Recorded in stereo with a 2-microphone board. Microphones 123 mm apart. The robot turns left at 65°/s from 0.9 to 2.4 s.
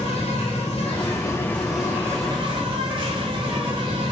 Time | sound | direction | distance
0.0 | an insect | 55° left | 3 m